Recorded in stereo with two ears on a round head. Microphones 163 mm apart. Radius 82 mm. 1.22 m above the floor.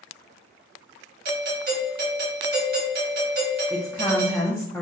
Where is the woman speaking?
10° left (ahead or behind), 0.5 m.